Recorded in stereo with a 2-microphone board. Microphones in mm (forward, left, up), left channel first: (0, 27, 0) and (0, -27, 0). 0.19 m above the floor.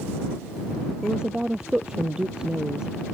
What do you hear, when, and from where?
1.0 s a woman speaking: 15° right (ahead or behind)